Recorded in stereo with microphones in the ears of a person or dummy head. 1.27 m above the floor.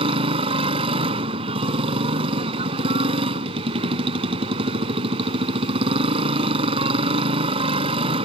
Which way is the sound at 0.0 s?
35° right (ahead or behind).